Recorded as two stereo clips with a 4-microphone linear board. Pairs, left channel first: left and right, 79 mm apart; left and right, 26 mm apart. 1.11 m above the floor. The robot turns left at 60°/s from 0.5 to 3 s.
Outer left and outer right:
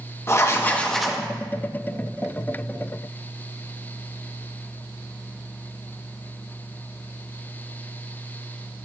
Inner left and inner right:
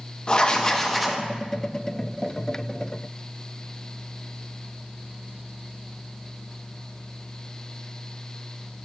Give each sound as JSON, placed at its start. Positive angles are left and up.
{"t": 0.3, "sound": "writing", "azimuth_deg": 30, "distance_m": 0.7}